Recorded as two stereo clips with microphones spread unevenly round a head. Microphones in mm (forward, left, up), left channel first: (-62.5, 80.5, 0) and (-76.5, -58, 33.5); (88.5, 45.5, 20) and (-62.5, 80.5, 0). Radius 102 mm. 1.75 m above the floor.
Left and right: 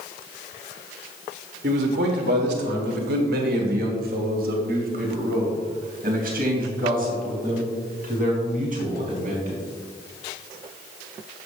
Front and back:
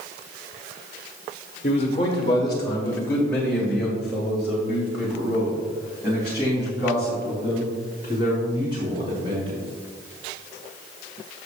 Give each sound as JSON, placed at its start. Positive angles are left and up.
{"t": 1.6, "sound": "a man speaking", "azimuth_deg": -70, "distance_m": 1.4}